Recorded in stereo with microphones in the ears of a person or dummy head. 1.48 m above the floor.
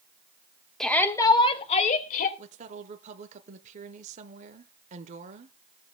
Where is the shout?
10° left (ahead or behind), 1.3 m; by 2.3 s 50° left (ahead or behind), 2 m.